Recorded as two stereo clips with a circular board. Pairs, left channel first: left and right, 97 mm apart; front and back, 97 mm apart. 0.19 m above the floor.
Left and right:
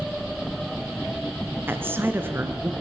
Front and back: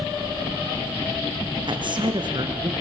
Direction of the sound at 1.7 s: 155° right.